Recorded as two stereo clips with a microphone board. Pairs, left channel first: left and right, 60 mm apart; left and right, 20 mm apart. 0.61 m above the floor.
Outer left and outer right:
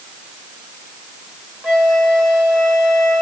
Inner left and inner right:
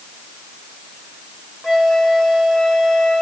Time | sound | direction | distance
1.6 | a flute | 10° right (ahead or behind) | 1.9 m